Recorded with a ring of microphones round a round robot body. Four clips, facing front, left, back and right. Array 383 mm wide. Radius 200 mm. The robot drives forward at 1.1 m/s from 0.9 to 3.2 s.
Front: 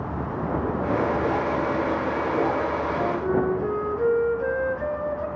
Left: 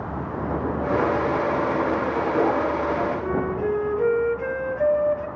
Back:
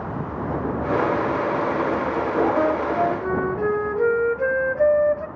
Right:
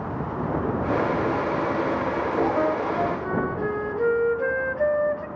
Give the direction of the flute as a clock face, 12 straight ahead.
5 o'clock.